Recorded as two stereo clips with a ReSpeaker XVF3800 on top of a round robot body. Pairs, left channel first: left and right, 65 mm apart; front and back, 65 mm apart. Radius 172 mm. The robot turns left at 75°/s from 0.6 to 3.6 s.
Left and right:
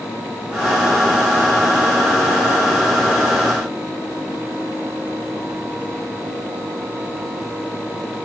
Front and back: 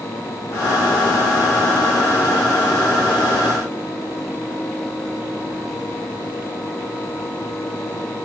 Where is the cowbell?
I don't hear a cowbell.